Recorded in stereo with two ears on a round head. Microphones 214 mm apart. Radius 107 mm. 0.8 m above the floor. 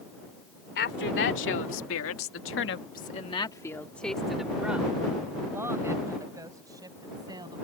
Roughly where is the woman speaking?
Left.